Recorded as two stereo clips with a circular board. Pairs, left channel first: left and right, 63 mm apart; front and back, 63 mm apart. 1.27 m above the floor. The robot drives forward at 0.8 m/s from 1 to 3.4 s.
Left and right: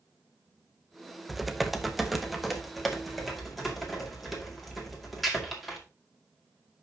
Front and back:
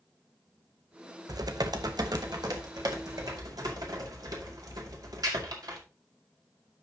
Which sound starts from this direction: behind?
Typing on a keyboard, at 1.3 s.